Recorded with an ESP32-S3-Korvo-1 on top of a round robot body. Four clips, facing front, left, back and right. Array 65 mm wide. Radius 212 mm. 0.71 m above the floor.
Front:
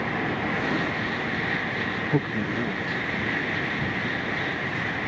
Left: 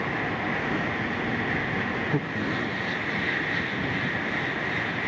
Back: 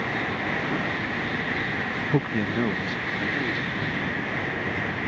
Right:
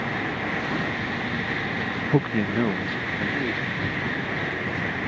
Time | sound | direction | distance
2.1 | a man speaking | 100° right | ?